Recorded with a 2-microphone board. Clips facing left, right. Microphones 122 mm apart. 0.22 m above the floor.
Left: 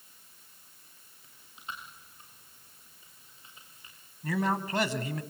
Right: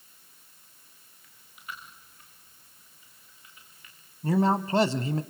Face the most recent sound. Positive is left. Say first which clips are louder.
# right 6 dB
turn(degrees=-30)  # may be behind; listen again after turning